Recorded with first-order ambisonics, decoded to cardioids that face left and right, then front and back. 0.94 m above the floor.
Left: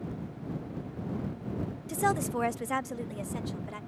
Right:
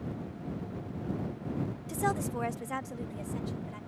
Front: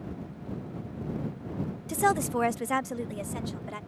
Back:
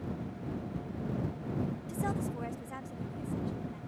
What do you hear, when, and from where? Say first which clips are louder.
1.9 s a woman speaking: left 3 dB, front 14 dB; 15° left; by 3.8 s 25° left